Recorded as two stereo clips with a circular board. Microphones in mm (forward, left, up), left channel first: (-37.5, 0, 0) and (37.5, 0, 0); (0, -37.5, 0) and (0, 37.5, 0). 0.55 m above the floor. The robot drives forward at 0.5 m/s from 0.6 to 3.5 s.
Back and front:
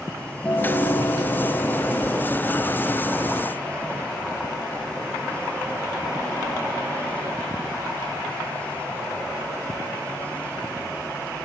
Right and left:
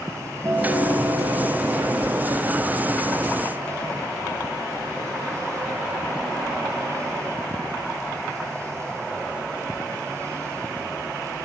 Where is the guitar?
135° left, 3 m; by 2.9 s 150° left, 4 m.